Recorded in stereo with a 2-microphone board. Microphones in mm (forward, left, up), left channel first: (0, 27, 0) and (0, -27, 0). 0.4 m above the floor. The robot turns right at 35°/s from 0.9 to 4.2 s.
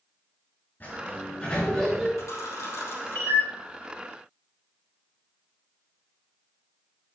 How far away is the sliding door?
About 5.5 m.